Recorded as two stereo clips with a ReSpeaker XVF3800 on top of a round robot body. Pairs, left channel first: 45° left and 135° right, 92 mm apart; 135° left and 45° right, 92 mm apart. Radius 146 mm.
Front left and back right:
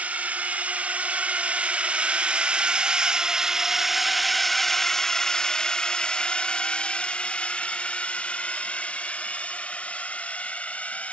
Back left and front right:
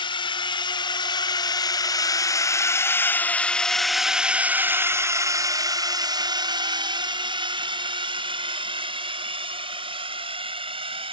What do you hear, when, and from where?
0.0 s a drone: 150° left; by 11.1 s 30° right